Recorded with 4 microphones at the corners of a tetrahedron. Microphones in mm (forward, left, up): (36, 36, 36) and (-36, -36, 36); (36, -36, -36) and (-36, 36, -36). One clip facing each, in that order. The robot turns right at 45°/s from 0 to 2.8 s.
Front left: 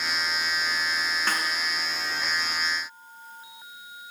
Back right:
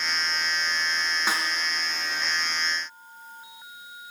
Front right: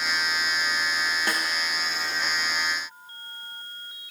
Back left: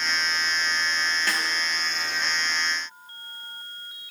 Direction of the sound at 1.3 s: 70° right.